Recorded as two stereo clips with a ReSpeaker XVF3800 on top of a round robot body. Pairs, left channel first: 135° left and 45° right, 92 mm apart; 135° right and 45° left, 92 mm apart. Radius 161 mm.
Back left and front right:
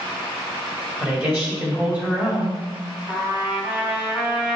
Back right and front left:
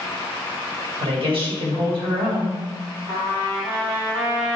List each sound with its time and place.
1.0 s a woman speaking: 25° left, 3 m
3.1 s a trumpet: 25° left, 3.5 m